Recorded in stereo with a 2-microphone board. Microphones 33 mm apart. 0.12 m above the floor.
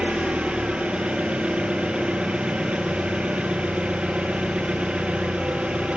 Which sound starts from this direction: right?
An engine running, at 0.0 s.